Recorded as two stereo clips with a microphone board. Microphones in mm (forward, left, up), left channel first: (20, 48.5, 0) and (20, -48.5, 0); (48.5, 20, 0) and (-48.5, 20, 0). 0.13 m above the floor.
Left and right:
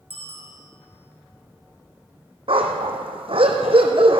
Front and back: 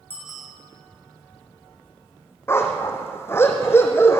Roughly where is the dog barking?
Ahead right.